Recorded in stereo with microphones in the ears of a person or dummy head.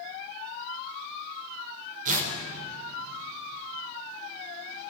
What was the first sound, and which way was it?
Tearing paper, 45° right (ahead or behind).